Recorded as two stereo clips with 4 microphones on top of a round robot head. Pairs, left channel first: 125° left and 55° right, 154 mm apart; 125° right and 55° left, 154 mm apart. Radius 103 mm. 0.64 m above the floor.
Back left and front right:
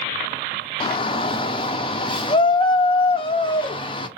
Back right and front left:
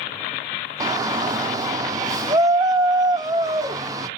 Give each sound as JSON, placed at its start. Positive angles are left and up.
{"t": 0.8, "sound": "a shout", "azimuth_deg": 105, "distance_m": 0.6}